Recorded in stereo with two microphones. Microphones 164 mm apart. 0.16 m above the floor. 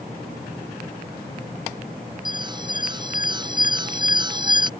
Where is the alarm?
25° right (ahead or behind).